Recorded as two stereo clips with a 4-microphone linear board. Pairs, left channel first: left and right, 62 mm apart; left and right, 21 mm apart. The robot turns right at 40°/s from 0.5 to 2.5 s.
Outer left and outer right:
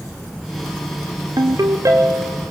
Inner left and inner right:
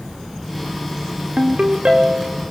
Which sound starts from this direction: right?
A ringtone, at 1.4 s.